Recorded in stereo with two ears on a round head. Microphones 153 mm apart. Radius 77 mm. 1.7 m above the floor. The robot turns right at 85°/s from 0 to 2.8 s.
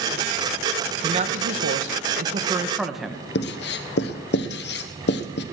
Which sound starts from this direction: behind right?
A man speaking, at 1.0 s.